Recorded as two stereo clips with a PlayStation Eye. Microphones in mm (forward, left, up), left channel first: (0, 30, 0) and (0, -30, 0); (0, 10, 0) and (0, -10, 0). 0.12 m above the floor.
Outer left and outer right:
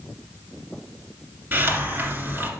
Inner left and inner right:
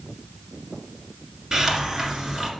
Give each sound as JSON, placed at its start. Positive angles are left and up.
{"t": 1.5, "sound": "a hiss", "side_deg": -35, "distance_m": 1.8}